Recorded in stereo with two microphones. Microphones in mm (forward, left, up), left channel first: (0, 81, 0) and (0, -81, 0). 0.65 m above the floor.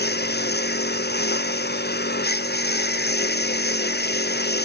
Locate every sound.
0.0 s a lawn mower: 85° left